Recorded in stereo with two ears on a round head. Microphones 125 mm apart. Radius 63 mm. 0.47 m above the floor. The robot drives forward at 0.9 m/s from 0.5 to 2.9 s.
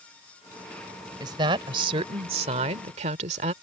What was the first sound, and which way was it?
A woman speaking, 30° right (ahead or behind).